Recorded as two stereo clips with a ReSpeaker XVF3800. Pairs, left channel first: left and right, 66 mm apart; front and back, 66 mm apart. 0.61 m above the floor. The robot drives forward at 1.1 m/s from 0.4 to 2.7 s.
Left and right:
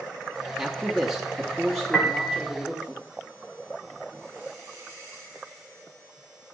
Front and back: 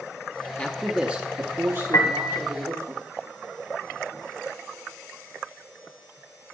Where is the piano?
10° left, 1.5 m; by 2.4 s 15° left, 1.0 m.